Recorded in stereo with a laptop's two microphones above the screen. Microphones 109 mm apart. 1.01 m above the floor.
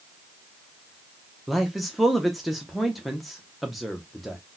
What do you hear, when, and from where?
1.5 s a man speaking: centre (ahead or behind), 0.6 m